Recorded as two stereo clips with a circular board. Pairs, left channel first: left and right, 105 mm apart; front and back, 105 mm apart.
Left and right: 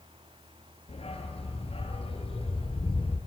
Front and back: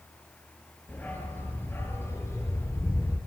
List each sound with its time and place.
0.9 s a dog barking: 75° left, 7 m; by 3.2 s 65° left, 7.5 m